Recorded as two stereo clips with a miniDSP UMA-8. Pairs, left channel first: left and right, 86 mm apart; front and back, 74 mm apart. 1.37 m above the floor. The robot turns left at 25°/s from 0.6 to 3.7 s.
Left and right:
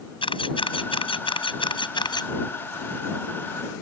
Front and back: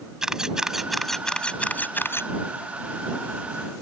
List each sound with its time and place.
0.2 s a camera shutter: 100° left; by 2.3 s 55° left